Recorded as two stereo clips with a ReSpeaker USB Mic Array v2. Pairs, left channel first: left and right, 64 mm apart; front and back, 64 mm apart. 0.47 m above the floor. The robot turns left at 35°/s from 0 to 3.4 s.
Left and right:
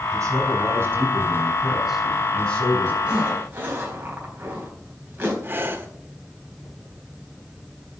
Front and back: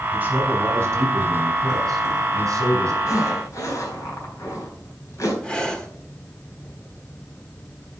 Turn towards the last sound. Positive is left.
turn(degrees=-65)